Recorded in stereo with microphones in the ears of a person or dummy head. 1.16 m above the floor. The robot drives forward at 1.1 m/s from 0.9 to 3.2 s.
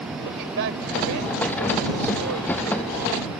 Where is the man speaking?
70° right (ahead or behind); by 3.4 s 85° right.